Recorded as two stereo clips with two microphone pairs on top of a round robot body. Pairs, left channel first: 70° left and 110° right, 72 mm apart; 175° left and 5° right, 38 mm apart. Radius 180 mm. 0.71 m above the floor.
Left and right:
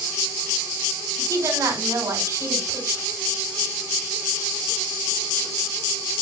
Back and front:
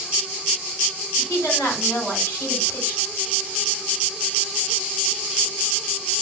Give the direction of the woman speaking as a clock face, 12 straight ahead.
5 o'clock.